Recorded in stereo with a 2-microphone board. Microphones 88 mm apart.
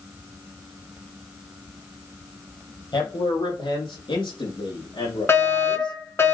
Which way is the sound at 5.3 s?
30° left (ahead or behind).